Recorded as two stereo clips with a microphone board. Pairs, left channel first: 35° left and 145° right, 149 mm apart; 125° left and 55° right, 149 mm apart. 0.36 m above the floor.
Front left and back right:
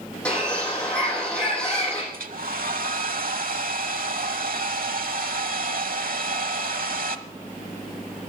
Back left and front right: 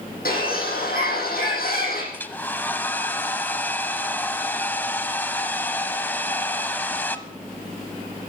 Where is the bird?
115° left, 7 m.